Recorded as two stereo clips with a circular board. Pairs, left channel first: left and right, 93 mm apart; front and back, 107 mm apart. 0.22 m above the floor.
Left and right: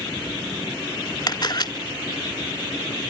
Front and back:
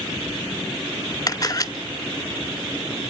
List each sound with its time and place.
1.3 s a camera shutter: 55° left, 0.7 m